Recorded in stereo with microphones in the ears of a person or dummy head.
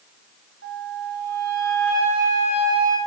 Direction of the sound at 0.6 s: 75° right (ahead or behind).